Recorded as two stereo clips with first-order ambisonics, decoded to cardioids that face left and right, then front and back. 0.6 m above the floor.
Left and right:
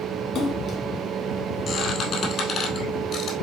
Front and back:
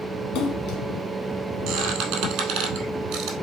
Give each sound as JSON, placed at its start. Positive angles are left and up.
{"t": 0.3, "sound": "a splash", "azimuth_deg": 30, "distance_m": 1.1}
{"t": 1.7, "sound": "a squeak", "azimuth_deg": 150, "distance_m": 1.8}